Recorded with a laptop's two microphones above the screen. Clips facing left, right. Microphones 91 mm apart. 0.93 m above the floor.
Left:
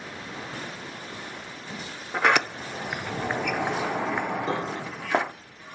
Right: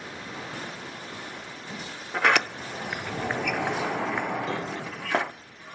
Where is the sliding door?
10° left (ahead or behind), 0.5 m.